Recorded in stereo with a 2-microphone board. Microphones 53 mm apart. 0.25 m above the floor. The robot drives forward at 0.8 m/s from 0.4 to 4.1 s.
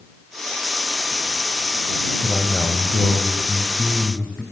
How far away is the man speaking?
About 1.0 m.